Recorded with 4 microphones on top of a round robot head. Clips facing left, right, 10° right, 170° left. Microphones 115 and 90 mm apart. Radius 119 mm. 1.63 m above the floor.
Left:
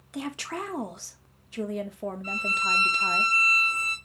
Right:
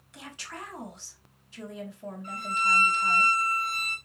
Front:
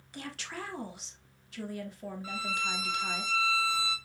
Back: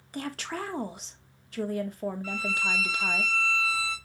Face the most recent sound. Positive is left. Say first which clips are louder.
# right 7 dB, back 3 dB
turn(degrees=60)